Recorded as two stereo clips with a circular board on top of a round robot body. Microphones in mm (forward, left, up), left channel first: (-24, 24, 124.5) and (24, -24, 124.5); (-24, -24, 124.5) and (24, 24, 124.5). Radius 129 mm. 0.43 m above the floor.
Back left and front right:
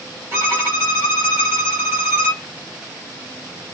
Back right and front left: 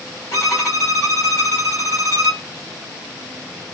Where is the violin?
100° right, 1.8 m.